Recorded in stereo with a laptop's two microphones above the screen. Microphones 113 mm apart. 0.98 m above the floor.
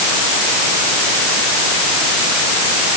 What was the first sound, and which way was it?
Only background noise.